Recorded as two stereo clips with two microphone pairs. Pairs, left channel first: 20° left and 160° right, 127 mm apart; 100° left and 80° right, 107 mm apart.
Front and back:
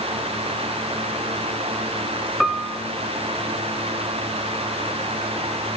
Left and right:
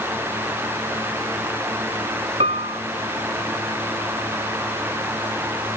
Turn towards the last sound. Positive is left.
turn(degrees=-70)